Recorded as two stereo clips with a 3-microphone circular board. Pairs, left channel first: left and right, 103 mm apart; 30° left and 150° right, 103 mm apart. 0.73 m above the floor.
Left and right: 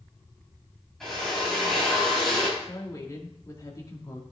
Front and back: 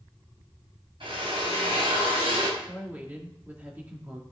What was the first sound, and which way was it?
A drill, 175° left.